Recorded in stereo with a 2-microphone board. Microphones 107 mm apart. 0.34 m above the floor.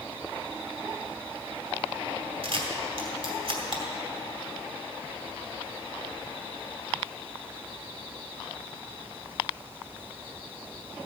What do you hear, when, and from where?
2.4 s a camera shutter: 55° right (ahead or behind), 2.5 m